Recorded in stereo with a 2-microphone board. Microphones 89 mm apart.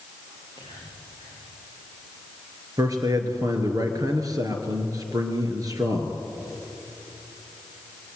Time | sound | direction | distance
0.3 | whispering | 70° right (ahead or behind) | 8.5 m
2.8 | a man speaking | 40° right (ahead or behind) | 3 m